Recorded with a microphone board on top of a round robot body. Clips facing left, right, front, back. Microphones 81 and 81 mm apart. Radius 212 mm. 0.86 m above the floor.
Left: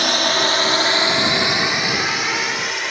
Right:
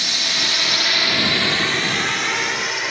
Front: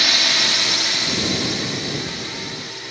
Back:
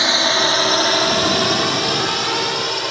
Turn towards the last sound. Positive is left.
turn(degrees=180)